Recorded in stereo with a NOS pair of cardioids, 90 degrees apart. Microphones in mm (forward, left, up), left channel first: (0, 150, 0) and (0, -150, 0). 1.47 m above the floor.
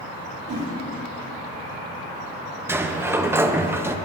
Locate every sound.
0.5 s a whoosh: 65° right, 4.5 m
2.7 s a sliding door: 10° right, 0.6 m